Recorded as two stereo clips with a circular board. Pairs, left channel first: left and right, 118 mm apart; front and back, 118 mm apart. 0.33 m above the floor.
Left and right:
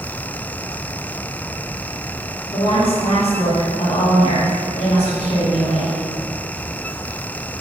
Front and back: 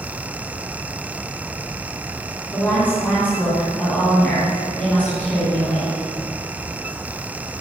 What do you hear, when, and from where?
2.5 s a woman speaking: 75° left, 2.5 m